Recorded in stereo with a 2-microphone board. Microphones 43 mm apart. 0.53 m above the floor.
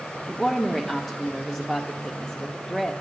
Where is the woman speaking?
5° left (ahead or behind), 0.8 m.